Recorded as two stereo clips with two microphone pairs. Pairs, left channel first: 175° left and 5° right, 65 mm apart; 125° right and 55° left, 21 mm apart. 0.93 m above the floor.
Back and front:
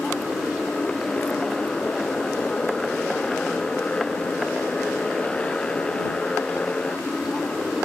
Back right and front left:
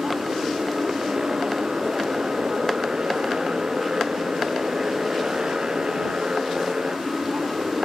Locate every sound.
0.0 s a motorcycle: 95° left; by 7.8 s 100° left